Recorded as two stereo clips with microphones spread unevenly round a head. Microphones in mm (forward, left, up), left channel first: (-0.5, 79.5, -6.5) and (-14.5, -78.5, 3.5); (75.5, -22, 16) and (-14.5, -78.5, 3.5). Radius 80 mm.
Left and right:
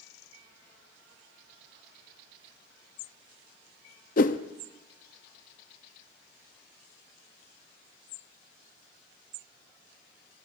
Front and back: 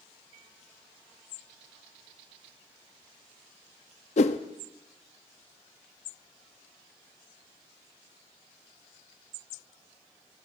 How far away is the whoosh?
About 0.7 m.